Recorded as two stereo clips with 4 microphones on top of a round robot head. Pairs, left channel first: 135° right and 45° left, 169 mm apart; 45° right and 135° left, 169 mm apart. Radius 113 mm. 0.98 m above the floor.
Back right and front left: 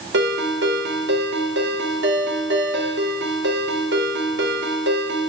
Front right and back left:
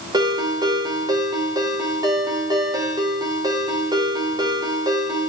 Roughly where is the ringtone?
Ahead left.